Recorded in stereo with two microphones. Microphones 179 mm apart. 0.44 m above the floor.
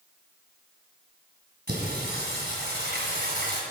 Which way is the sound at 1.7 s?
65° right (ahead or behind).